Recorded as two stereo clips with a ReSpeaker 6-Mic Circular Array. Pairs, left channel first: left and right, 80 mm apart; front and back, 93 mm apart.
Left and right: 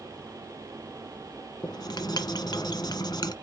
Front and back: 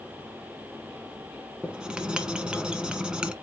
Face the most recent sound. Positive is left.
turn(degrees=100)